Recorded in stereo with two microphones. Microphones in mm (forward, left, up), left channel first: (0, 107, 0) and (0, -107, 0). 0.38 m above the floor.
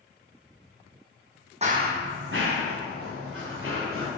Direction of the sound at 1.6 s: 30° right (ahead or behind).